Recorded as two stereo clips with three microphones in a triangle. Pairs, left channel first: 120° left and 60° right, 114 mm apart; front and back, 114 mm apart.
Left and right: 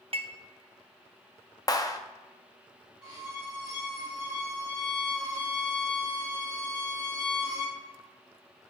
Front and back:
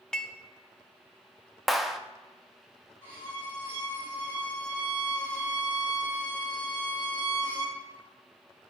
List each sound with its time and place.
0.1 s dishes clattering: 80° right, 0.5 m
1.7 s a clap: 90° left, 0.5 m
3.0 s a violin: 110° right, 3 m